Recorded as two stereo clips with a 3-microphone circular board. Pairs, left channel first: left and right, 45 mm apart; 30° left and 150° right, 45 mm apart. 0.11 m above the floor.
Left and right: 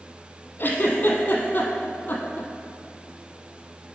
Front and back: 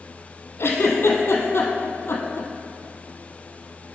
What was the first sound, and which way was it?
A giggle, 50° left.